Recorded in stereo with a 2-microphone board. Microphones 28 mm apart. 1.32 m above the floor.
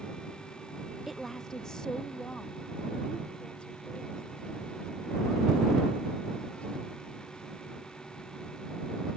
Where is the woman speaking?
5° right (ahead or behind); by 7.0 s 45° left (ahead or behind).